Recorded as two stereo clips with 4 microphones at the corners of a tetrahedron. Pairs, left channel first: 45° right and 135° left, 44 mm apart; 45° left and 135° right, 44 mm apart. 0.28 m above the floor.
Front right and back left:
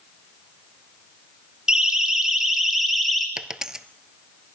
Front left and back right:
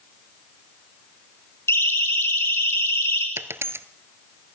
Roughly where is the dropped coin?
Behind right.